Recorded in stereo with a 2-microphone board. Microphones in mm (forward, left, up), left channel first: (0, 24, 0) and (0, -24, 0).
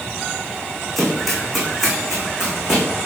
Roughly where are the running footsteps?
Centre.